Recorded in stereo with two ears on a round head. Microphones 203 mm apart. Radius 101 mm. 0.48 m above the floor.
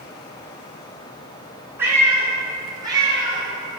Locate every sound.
1.8 s a cat meowing: 10° right (ahead or behind), 2.5 m; by 3.4 s 20° right (ahead or behind), 4.5 m